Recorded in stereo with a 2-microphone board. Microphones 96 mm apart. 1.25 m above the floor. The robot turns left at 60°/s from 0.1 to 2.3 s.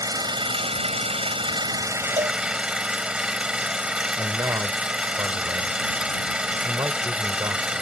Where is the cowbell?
80° right; by 2.4 s 70° right (ahead or behind).